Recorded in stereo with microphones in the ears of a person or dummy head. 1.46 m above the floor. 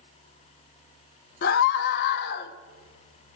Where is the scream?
55° left (ahead or behind), 0.8 m.